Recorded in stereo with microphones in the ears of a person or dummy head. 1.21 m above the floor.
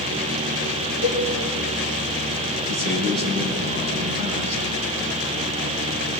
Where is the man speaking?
40° right (ahead or behind), 9 m.